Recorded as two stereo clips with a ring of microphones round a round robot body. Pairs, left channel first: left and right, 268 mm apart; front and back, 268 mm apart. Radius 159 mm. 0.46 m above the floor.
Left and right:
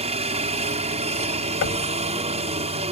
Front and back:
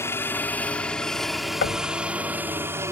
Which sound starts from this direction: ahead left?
Knocking, at 1.6 s.